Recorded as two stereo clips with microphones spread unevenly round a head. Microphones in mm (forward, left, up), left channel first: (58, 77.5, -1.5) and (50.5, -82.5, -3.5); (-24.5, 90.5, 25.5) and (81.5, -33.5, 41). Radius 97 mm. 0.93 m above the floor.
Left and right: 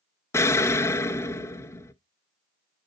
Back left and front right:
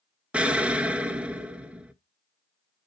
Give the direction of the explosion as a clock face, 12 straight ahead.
11 o'clock.